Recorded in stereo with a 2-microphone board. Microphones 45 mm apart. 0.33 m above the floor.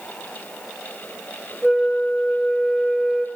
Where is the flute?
15° right (ahead or behind), 3.5 m.